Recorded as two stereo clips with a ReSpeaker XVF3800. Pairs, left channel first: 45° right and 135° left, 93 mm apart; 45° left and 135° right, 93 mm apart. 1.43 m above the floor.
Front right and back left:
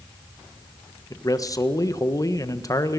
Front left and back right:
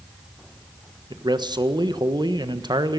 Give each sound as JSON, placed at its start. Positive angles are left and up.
{"t": 1.1, "sound": "a man speaking", "azimuth_deg": -95, "distance_m": 1.4}